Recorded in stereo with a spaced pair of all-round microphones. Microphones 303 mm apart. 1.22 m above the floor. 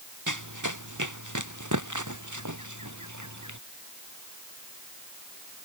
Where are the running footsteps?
80° right; by 3.6 s 70° right (ahead or behind).